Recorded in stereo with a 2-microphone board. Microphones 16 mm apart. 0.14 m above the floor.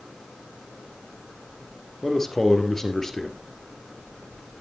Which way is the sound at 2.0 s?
30° left (ahead or behind).